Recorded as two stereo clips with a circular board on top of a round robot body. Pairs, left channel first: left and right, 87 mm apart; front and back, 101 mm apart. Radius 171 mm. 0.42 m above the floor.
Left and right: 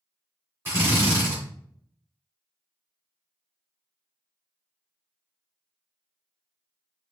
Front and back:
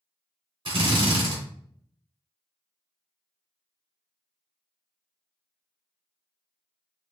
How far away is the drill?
About 2.5 m.